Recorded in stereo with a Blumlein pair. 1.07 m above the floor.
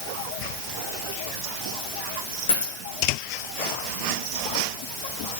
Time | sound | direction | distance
2.5 | a dropped coin | 65° left | 5.5 m